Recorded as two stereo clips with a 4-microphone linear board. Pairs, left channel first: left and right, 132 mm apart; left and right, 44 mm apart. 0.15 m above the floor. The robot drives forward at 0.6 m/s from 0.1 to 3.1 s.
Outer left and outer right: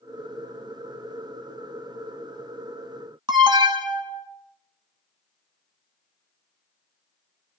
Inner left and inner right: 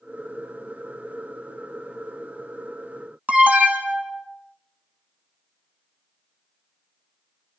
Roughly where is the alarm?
Right.